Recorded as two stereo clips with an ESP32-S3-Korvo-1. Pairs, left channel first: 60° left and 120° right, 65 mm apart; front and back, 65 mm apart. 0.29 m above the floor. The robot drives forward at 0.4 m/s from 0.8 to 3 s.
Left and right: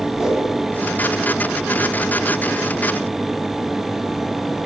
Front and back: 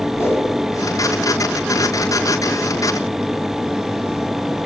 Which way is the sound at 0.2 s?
40° right.